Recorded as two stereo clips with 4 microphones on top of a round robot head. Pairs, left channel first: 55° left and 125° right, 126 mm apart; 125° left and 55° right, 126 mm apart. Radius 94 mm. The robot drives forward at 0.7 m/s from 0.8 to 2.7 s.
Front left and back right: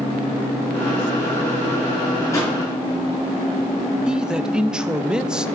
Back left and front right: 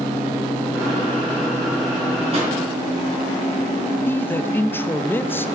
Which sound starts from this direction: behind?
A man speaking, at 4.1 s.